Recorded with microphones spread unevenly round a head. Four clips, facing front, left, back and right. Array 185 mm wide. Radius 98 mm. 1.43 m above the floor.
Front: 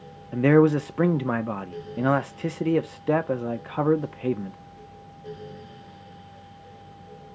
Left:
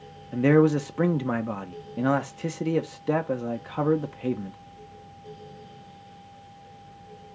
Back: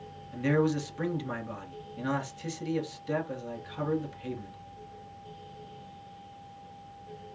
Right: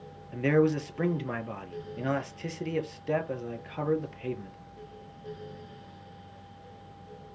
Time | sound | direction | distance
0.3 | a man speaking | 25° left | 0.8 m